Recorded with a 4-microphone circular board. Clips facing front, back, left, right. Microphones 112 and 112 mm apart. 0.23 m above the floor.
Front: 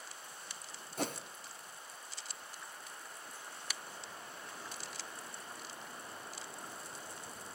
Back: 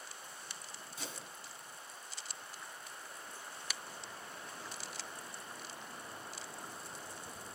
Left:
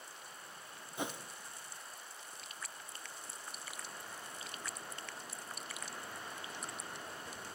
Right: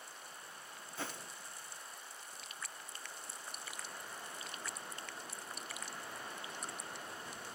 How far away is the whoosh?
About 1.1 m.